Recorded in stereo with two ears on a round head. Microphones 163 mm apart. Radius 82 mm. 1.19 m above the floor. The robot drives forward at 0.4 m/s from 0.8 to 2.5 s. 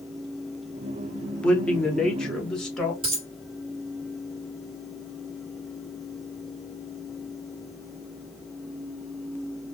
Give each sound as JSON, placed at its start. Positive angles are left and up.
{"t": 1.4, "sound": "a man speaking", "side_deg": 5, "distance_m": 0.6}
{"t": 3.0, "sound": "a dropped coin", "side_deg": -30, "distance_m": 2.0}